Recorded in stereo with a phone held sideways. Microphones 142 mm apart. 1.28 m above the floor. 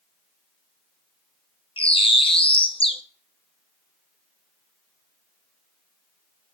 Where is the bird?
40° left (ahead or behind), 0.9 m.